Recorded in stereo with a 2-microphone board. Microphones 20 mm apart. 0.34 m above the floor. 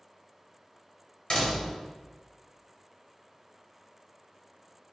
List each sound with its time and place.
1.3 s a door slam: 45° left (ahead or behind), 0.8 m